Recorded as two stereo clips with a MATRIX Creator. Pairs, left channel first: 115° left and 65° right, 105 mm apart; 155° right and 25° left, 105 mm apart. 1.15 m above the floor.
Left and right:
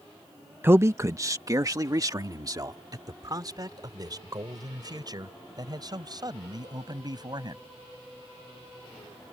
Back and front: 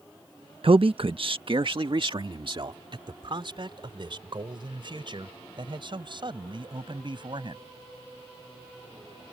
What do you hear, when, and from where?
0.6 s a man speaking: straight ahead; by 7.6 s 20° right